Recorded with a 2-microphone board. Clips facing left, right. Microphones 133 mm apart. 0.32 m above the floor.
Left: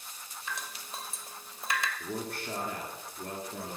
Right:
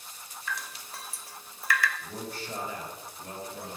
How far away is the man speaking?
About 4 m.